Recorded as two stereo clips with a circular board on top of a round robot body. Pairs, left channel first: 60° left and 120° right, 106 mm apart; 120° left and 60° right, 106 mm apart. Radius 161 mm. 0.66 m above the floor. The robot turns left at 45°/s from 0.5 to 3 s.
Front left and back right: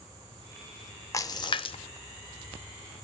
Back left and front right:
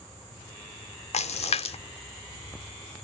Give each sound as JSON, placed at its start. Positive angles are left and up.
{"t": 1.1, "sound": "a splash", "azimuth_deg": 120, "distance_m": 0.8}